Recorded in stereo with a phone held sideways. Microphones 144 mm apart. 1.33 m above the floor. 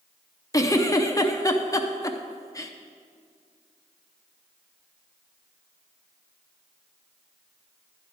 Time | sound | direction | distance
0.5 | a giggle | 25° left (ahead or behind) | 0.5 m